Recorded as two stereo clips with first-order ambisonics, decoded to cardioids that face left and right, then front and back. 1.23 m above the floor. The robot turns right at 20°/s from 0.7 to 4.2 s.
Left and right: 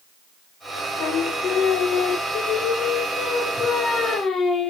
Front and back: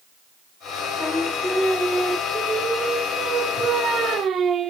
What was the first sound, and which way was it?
Singing, 80° left.